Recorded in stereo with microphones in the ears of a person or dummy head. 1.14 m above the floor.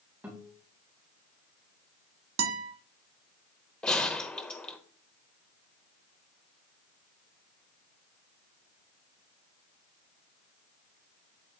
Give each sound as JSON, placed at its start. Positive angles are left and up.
{"t": 0.2, "sound": "a guitar", "side_deg": -5, "distance_m": 3.5}
{"t": 2.4, "sound": "a guitar", "side_deg": -85, "distance_m": 1.5}
{"t": 3.8, "sound": "a gunshot", "side_deg": 5, "distance_m": 1.2}